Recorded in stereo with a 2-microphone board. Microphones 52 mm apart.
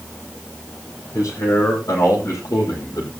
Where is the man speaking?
85° left, 9 m.